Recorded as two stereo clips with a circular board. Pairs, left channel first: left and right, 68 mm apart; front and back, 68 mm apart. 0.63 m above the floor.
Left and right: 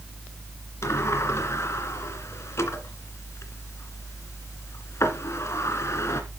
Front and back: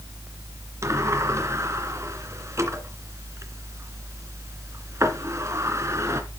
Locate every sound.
0.8 s a sliding door: 135° left, 2 m